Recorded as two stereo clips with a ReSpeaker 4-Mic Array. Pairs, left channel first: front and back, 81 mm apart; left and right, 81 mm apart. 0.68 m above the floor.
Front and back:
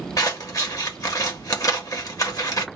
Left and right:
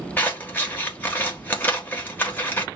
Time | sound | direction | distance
0.2 | scissors | 30° left | 0.9 m